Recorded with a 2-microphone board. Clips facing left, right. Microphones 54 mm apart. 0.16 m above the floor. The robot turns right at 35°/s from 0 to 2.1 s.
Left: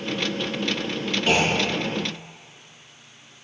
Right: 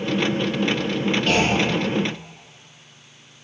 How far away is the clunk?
About 3 m.